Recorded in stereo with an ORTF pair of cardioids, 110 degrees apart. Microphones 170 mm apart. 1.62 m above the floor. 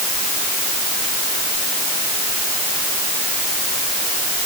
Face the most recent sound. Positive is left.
No sound to turn to.